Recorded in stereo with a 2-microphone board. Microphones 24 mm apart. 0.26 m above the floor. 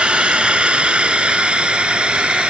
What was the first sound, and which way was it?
A drone, 45° right (ahead or behind).